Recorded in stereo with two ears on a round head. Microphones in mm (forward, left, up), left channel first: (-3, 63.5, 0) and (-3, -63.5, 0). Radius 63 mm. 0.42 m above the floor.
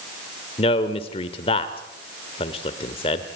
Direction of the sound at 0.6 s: 40° left (ahead or behind).